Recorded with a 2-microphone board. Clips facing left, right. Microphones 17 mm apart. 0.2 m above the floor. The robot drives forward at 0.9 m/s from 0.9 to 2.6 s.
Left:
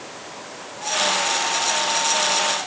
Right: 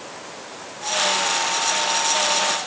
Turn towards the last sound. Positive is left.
No sound to turn to.